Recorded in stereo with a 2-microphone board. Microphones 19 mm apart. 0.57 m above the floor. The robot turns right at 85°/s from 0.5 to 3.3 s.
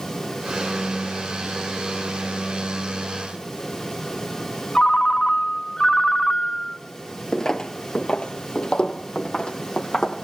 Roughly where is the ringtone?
Left.